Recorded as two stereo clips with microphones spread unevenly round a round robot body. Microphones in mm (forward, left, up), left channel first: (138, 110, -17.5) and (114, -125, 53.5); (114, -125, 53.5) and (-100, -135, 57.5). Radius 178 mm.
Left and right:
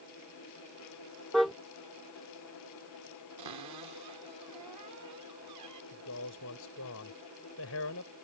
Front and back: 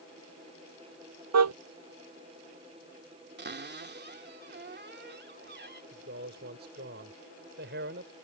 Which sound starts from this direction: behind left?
A man speaking, at 5.9 s.